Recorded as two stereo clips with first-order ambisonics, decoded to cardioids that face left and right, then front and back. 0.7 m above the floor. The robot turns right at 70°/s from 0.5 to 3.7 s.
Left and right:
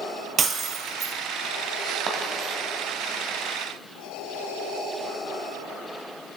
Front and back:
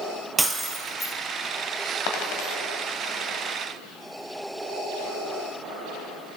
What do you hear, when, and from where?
0.4 s breaking glass: 110° right, 0.8 m; by 1.1 s 65° right, 0.8 m
2.1 s a dropped coin: 30° right, 1.3 m; by 2.6 s 5° left, 1.3 m